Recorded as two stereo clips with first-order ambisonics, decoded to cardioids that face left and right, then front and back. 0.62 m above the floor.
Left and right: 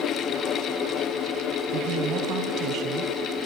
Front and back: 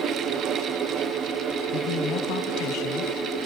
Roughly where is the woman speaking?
Ahead right.